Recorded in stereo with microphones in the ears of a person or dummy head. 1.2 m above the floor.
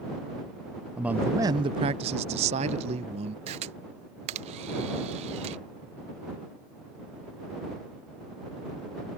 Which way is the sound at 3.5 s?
35° right (ahead or behind).